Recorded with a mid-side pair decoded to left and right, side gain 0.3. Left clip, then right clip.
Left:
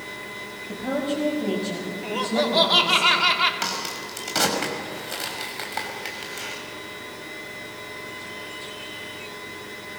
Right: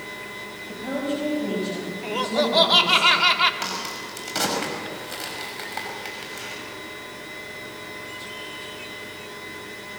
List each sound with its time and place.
0.7 s a woman speaking: 40° left, 6 m; by 3.0 s 25° left, 5 m
2.0 s laughter: 20° right, 2.5 m
3.6 s a crack: 30° left, 5.5 m